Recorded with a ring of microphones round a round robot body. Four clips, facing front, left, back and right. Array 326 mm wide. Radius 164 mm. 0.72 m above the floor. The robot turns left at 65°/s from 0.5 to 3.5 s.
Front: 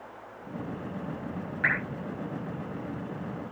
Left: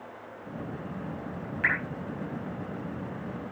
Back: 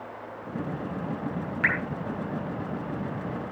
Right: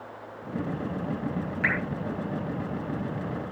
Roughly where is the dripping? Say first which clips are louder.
Even, back 1 dB; behind.